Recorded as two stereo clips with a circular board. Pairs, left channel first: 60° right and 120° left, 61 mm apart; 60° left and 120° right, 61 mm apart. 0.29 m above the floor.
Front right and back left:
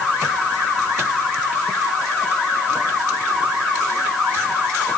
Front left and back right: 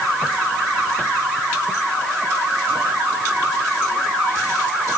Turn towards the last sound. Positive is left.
No sound to turn to.